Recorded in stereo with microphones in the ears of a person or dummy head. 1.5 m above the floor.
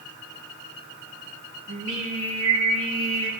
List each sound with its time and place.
1.7 s singing: 80° right, 3 m